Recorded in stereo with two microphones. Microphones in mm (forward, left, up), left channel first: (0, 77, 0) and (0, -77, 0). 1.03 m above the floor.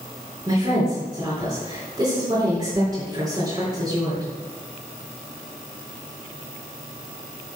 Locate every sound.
0.5 s a woman speaking: 25° right (ahead or behind), 3.5 m